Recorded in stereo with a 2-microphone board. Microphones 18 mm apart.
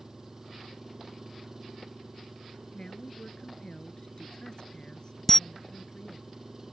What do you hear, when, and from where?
0.0 s an engine running: 25° right (ahead or behind)
2.7 s a woman speaking: 40° left (ahead or behind)
5.3 s a camera shutter: 20° left (ahead or behind)